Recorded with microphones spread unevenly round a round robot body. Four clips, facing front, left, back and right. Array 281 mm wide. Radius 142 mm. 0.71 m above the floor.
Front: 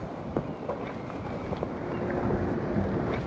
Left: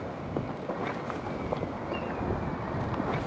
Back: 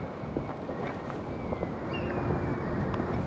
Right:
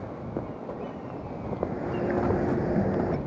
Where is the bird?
75° right.